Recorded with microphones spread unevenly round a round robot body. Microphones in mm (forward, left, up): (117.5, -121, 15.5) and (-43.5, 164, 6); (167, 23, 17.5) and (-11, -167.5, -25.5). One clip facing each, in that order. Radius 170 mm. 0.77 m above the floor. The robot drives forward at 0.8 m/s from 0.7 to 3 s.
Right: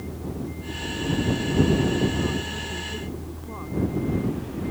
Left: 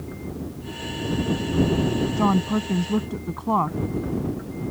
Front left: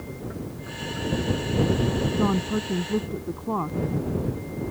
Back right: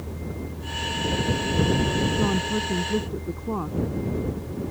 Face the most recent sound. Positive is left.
turn(degrees=135)